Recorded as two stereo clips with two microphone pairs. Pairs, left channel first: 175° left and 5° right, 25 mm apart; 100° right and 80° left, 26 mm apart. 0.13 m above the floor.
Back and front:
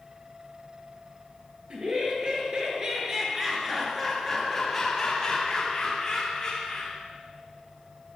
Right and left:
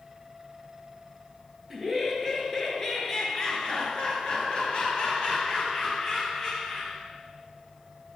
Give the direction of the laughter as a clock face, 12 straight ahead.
12 o'clock.